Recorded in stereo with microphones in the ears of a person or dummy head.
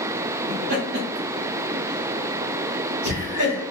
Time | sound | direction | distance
0.5 | laughter | 45° right (ahead or behind) | 0.8 m